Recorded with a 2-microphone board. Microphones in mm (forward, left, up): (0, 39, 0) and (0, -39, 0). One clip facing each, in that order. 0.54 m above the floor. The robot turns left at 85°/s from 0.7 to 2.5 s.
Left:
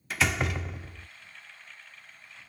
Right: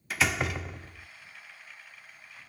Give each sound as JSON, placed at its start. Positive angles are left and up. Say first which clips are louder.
{"t": 0.1, "sound": "a door slam", "louder": "even", "azimuth_deg": 180}